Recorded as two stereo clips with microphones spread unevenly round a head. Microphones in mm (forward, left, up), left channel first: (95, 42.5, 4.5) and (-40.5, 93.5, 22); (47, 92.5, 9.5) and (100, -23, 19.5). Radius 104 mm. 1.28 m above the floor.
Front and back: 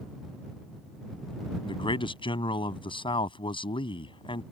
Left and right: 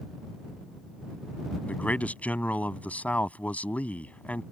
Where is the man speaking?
35° left.